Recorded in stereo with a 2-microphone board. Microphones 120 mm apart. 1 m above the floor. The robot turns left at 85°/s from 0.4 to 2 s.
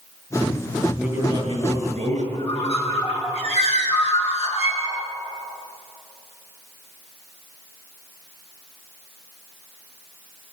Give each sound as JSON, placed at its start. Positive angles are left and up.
{"t": 1.0, "sound": "a man speaking", "azimuth_deg": -10, "distance_m": 6.5}
{"t": 2.3, "sound": "a bird", "side_deg": 55, "distance_m": 6.5}